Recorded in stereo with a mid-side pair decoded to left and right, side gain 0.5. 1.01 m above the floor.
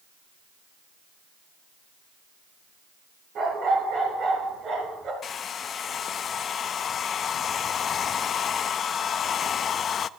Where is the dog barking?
55° right, 8.5 m; by 5.1 s 50° right, 6 m.